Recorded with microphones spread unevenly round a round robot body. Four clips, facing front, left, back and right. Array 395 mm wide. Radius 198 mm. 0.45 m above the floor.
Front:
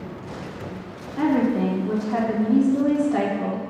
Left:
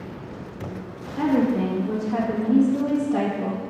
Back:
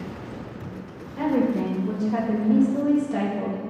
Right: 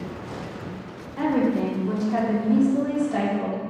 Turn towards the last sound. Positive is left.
turn(degrees=180)